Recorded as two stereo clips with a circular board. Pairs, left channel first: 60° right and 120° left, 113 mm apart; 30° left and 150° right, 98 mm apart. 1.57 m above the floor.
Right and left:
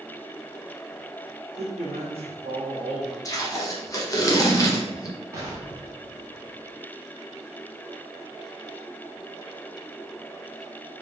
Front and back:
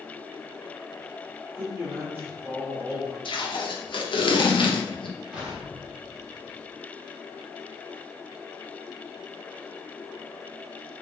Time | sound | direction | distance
1.6 | a man speaking | 135° left | 1.2 m
3.2 | tape being pulled | straight ahead | 0.9 m
5.3 | an explosion | 140° left | 1.1 m